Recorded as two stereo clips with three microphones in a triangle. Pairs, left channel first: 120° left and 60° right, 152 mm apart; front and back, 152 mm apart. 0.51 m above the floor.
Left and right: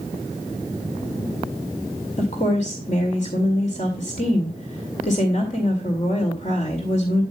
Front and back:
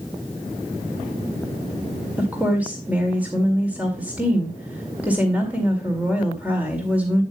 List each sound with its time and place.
2.2 s a woman speaking: 100° left, 2 m